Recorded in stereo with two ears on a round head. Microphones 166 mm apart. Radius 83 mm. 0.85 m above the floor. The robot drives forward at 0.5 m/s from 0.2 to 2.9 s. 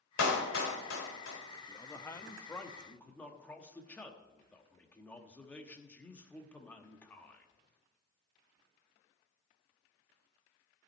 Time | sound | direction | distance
0.2 | a clap | 80° left | 3.5 m
1.7 | a man speaking | 20° left (ahead or behind) | 0.5 m